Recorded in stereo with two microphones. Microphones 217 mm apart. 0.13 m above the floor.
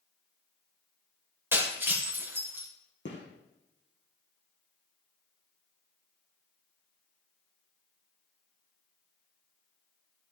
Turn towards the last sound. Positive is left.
turn(degrees=60)  # may be behind; listen again after turning